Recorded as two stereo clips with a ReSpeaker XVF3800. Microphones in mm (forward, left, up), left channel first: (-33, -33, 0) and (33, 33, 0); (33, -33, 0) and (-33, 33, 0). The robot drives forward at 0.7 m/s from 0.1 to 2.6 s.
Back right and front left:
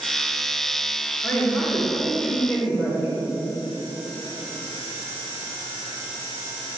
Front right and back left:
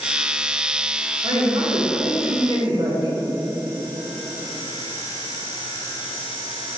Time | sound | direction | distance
1.2 | a man speaking | 150° left | 1.8 m